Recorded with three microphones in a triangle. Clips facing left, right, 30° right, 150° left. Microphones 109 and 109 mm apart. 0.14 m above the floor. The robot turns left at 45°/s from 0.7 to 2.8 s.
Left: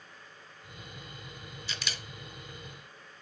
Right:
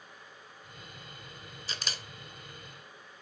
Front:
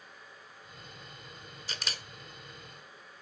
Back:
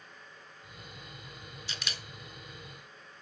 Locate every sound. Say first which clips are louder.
1.7 s a camera shutter: even, front 2 dB; 60° right, 1.1 m; by 2.0 s 75° right, 1.1 m